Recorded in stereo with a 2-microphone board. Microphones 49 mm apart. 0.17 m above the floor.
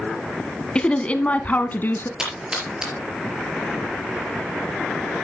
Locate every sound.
0.8 s a woman speaking: 20° left (ahead or behind), 1.1 m; by 2.1 s 45° left (ahead or behind), 1.4 m
2.2 s a splash: 15° right (ahead or behind), 4.5 m